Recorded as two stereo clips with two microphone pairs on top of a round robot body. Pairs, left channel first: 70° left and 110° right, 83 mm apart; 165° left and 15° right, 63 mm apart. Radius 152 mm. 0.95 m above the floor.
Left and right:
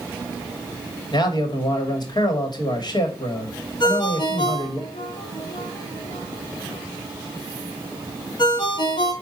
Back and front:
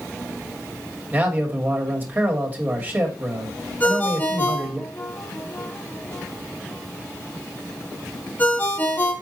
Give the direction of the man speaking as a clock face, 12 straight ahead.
11 o'clock.